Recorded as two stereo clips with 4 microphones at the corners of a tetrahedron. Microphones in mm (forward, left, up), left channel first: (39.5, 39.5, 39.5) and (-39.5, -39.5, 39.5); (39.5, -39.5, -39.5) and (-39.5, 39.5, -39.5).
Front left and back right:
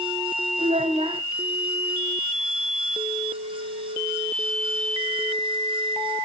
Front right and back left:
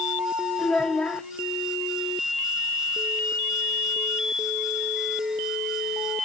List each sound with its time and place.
0.6 s a child speaking: 125° right, 1.8 m